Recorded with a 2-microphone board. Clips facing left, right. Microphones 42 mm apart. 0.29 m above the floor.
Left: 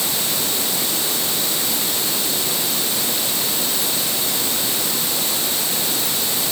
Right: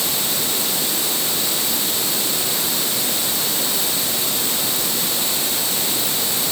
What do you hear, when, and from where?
Only background noise.